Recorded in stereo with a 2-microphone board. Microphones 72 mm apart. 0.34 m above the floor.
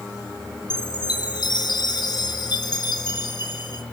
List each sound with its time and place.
0.7 s a chime: 70° left (ahead or behind), 3 m